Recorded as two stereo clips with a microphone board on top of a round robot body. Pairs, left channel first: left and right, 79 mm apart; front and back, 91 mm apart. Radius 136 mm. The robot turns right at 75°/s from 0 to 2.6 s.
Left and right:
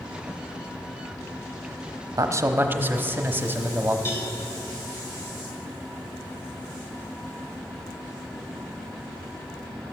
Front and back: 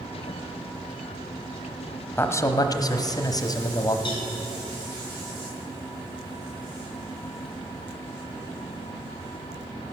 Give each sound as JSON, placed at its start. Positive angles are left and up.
{"t": 2.2, "sound": "a man speaking", "azimuth_deg": -60, "distance_m": 1.0}
{"t": 4.0, "sound": "a cowbell", "azimuth_deg": 30, "distance_m": 2.5}